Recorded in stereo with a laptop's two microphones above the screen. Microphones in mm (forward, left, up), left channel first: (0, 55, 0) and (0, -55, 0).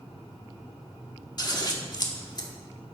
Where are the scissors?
40° left (ahead or behind), 1.5 m.